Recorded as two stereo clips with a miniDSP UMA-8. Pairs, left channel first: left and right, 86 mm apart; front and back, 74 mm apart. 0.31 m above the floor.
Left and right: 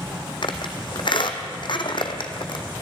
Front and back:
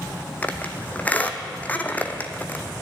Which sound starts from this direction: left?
A squeak, at 0.4 s.